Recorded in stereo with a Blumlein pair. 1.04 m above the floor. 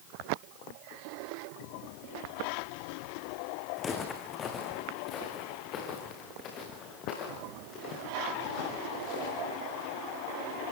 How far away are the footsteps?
About 3.5 m.